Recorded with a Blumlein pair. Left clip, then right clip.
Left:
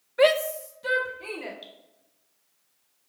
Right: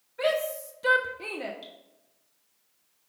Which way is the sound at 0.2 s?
35° left.